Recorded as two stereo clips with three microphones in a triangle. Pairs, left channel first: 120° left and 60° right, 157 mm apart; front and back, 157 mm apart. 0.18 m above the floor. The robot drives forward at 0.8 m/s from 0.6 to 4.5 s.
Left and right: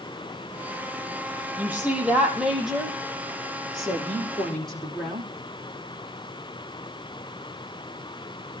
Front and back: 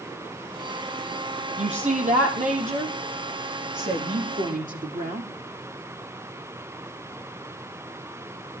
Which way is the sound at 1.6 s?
140° right.